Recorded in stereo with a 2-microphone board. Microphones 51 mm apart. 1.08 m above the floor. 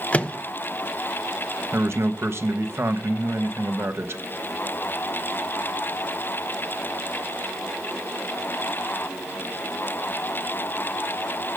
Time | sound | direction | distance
0.1 | a microwave | 25° left (ahead or behind) | 0.6 m
1.7 | a man speaking | 55° right (ahead or behind) | 1.3 m